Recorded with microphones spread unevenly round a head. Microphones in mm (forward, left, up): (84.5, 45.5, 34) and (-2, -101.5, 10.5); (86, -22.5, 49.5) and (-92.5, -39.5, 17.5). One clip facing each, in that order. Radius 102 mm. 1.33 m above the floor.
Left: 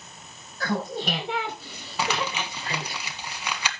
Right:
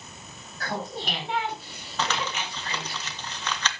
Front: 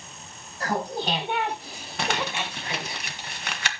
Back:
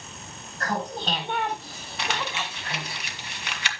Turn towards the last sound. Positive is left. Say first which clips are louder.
# left 2 dB, front 3 dB
turn(degrees=-10)